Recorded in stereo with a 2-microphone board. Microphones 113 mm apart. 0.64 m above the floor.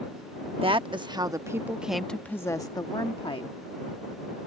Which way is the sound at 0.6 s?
50° right (ahead or behind).